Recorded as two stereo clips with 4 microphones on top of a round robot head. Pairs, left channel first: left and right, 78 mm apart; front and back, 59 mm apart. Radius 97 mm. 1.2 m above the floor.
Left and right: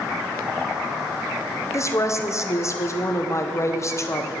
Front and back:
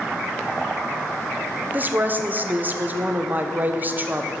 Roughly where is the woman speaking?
Behind left.